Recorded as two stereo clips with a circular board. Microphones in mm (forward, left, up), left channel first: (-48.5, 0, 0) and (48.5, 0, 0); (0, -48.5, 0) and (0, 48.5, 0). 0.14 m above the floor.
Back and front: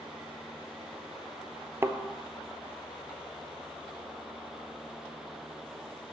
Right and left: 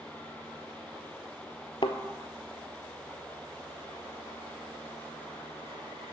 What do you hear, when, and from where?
1.8 s a thud: 65° right, 0.6 m